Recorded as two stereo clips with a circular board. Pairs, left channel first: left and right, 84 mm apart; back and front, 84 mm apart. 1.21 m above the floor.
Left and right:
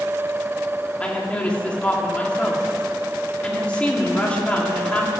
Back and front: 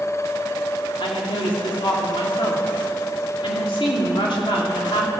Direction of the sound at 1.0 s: 165° left.